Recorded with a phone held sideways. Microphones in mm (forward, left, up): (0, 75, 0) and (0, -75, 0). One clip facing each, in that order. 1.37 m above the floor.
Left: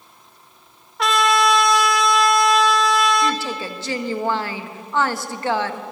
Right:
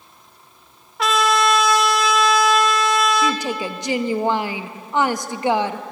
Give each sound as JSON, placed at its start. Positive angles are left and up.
{"t": 1.0, "sound": "a trumpet", "side_deg": 0, "distance_m": 1.5}
{"t": 3.2, "sound": "a woman speaking", "side_deg": -20, "distance_m": 1.4}